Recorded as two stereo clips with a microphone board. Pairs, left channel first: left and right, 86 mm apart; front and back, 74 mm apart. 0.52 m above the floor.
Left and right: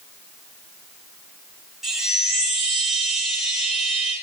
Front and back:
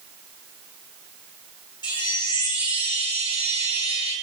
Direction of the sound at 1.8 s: 5° right.